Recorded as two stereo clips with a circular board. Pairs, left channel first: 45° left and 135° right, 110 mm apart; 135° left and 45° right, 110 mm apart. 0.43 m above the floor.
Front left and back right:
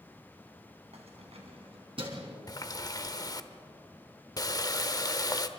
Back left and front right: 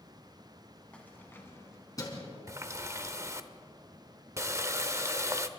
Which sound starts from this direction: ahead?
A running tap, at 2.5 s.